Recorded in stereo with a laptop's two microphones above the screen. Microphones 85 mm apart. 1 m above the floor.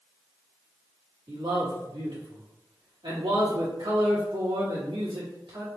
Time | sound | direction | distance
1.3 | a man speaking | 70° right (ahead or behind) | 1.8 m